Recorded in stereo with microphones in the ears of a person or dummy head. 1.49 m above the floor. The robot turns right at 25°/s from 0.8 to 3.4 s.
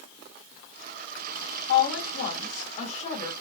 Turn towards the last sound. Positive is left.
turn(degrees=155)